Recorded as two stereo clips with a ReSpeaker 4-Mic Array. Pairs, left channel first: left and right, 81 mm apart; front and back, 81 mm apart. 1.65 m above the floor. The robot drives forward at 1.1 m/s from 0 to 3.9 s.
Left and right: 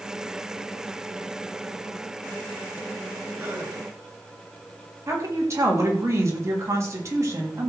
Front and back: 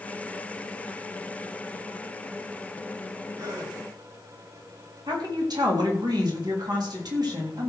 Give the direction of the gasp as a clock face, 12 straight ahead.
5 o'clock.